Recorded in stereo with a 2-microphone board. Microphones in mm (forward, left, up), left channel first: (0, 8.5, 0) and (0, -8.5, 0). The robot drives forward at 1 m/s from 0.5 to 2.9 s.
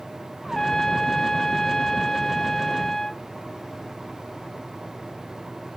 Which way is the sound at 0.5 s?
30° left (ahead or behind).